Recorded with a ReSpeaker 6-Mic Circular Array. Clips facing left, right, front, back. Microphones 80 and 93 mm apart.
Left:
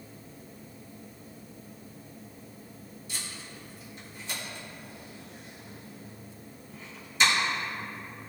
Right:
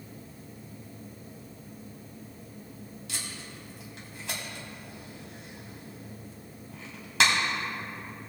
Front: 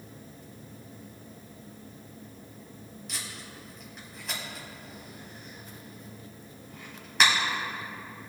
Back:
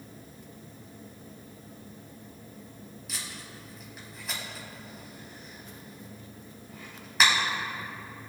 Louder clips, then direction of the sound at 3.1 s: Even, even; 90° right.